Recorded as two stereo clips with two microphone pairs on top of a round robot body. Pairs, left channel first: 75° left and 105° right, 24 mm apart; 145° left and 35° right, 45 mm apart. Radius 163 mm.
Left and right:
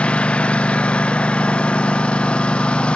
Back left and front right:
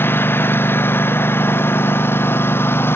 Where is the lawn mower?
110° left; by 3.0 s 115° left.